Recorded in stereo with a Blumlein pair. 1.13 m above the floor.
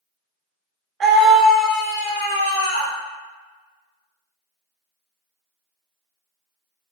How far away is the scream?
About 0.8 m.